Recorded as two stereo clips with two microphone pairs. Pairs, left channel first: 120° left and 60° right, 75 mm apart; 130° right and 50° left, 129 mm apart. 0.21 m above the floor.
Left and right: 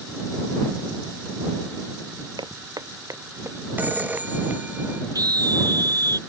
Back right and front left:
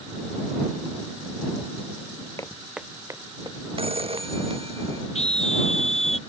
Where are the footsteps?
60° right; by 4.6 s 10° left.